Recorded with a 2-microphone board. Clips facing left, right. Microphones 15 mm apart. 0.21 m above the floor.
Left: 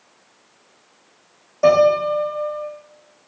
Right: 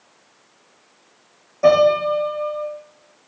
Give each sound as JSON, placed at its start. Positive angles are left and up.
{"t": 1.6, "sound": "a piano", "side_deg": 15, "distance_m": 2.5}